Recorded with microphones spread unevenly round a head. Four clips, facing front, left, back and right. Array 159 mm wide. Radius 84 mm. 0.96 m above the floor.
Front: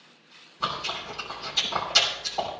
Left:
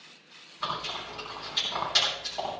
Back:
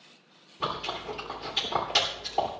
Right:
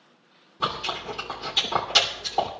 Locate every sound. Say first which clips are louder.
0.6 s chewing: right 5 dB, front 1 dB; 115° right, 3 m